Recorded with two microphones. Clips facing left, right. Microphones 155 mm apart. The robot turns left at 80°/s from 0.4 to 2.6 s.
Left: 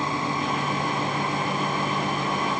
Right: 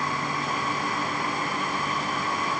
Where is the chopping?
No chopping in this recording.